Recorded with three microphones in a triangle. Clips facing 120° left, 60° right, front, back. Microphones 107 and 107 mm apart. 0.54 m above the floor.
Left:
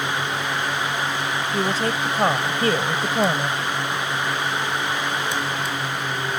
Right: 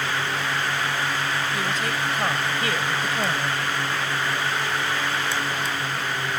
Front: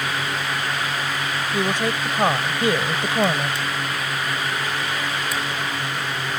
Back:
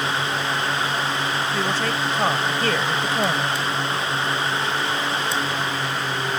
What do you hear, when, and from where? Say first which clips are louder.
1.5 s a woman speaking: left 4 dB, front 1 dB; 70° left